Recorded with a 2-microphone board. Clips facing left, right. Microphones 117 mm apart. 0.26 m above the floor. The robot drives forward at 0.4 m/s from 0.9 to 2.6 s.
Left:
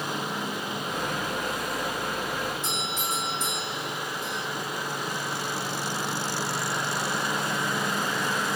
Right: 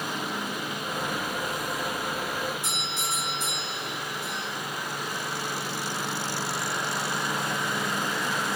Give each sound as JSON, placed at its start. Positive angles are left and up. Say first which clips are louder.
{"t": 2.6, "sound": "a doorbell", "louder": "left 2 dB", "side_deg": -10, "distance_m": 5.0}